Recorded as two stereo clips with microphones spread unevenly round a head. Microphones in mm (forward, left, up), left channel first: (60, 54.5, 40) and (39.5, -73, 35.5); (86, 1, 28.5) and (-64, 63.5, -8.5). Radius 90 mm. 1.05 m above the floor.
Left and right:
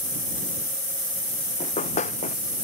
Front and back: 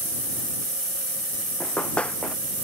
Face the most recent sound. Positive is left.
turn(degrees=55)